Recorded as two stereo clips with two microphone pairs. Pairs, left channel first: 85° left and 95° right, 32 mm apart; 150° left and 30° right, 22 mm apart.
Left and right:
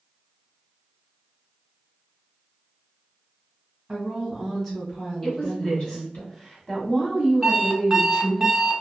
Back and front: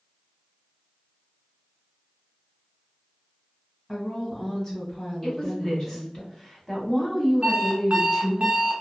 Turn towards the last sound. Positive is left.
turn(degrees=-15)